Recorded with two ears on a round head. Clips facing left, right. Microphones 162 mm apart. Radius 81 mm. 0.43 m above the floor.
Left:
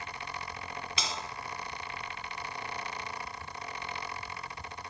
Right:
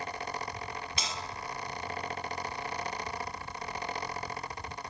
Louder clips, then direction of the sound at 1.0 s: Left 3 dB; 60° left (ahead or behind).